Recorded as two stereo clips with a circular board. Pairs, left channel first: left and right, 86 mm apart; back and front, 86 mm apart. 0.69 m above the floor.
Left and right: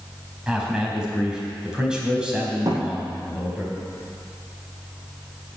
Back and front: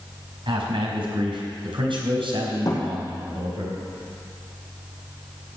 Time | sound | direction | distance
0.5 | a man speaking | 10° right | 4 m
2.6 | a thud | 135° right | 3.5 m